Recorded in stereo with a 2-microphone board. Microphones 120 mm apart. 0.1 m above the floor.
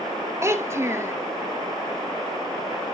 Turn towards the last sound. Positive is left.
turn(degrees=-25)  # may be behind; listen again after turning